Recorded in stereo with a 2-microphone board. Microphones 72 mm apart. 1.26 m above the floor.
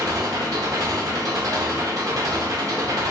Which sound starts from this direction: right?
An engine running, at 0.0 s.